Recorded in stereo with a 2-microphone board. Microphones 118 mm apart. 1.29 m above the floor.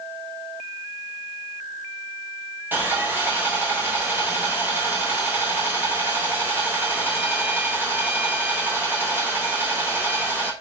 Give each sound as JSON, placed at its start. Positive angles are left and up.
{"t": 2.7, "sound": "sawing", "side_deg": -15, "distance_m": 1.2}